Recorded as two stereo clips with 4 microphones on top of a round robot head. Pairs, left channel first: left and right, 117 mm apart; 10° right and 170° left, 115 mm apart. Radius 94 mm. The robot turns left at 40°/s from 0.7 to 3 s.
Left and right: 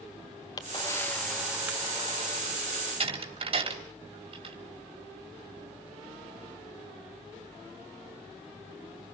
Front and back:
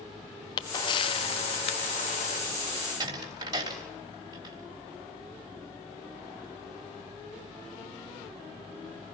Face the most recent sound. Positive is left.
turn(degrees=-130)